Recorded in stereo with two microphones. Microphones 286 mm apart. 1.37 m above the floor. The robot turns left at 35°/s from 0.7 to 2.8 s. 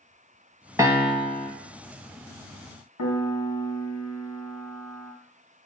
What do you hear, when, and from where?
0.8 s a piano: 10° right (ahead or behind), 0.7 m; by 1.5 s 10° left (ahead or behind), 0.7 m
3.0 s a piano: 85° left, 0.8 m